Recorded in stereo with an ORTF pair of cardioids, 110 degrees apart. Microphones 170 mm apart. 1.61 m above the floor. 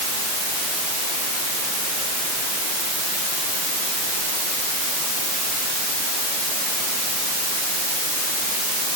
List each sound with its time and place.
Only background noise.